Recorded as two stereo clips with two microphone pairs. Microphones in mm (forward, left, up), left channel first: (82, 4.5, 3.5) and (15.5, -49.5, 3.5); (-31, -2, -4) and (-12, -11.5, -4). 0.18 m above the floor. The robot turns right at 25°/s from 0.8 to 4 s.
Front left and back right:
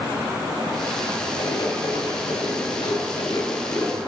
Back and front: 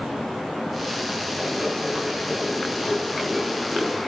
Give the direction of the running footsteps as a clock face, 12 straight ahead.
11 o'clock.